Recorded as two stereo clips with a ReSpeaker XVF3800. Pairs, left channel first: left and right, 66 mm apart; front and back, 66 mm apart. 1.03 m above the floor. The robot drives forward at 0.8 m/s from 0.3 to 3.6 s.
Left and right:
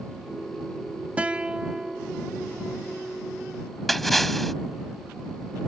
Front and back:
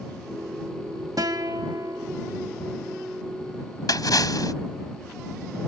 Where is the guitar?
160° right; by 2.1 s 170° right.